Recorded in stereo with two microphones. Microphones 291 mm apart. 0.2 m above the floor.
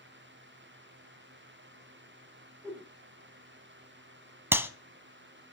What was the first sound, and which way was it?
A whoosh, 10° right (ahead or behind).